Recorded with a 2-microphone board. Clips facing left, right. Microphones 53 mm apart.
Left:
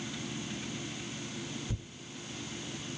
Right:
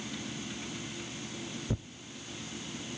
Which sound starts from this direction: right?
Tearing paper, at 1.7 s.